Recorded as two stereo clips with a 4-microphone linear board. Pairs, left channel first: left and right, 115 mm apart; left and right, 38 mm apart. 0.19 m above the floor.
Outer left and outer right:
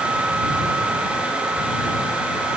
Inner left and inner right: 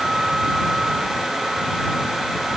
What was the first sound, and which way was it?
Only background noise.